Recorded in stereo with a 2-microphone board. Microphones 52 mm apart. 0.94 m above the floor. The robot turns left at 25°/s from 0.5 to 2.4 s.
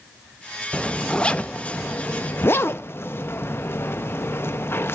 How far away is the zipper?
About 0.5 m.